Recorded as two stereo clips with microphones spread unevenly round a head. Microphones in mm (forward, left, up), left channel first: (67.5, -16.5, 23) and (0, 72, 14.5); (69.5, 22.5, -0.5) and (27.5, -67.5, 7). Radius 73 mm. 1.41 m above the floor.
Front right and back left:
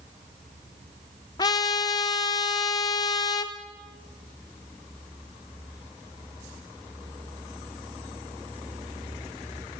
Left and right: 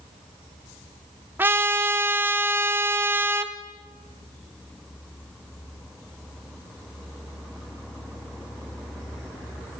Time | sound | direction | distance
1.4 | a trumpet | 70° right | 1.2 m